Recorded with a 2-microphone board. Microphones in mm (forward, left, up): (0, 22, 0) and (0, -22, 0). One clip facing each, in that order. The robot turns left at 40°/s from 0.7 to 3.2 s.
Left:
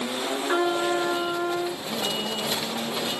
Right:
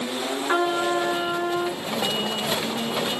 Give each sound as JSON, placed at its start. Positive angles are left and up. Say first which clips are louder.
{"t": 0.5, "sound": "a trumpet", "louder": "right 2 dB", "azimuth_deg": -20, "distance_m": 2.0}